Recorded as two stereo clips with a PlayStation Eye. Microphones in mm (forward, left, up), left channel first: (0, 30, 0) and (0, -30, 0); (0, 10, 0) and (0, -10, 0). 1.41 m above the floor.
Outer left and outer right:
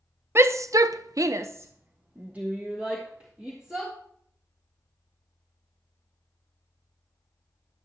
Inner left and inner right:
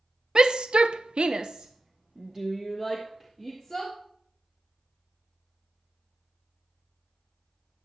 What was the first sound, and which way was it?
A shout, 45° right (ahead or behind).